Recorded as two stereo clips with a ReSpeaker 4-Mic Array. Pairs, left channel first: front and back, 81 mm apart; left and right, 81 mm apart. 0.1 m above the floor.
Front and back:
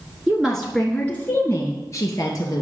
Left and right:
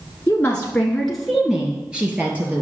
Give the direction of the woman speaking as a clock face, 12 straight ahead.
8 o'clock.